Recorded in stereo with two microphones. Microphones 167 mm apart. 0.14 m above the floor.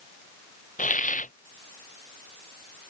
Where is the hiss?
50° left (ahead or behind).